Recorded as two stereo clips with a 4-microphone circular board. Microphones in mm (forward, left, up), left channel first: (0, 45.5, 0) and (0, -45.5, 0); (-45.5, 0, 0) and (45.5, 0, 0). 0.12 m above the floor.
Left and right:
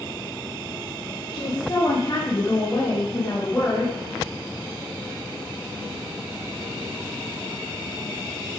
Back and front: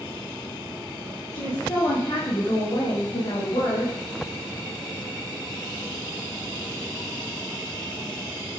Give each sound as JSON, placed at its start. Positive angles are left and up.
{"t": 1.3, "sound": "a woman speaking", "azimuth_deg": 130, "distance_m": 6.0}